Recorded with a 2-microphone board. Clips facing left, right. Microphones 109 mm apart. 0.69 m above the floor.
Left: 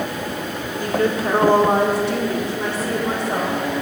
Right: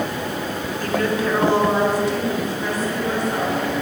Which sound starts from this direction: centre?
A woman speaking, at 0.8 s.